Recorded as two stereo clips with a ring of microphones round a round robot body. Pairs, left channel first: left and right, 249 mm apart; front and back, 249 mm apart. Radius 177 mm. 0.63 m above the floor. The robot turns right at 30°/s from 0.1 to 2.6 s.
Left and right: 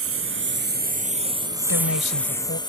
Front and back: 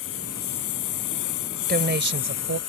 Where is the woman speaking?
125° left; by 2.6 s 155° left.